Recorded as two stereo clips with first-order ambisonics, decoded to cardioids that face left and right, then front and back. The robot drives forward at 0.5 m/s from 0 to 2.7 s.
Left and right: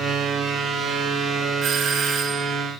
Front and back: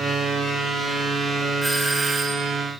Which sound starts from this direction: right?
A doorbell, at 1.6 s.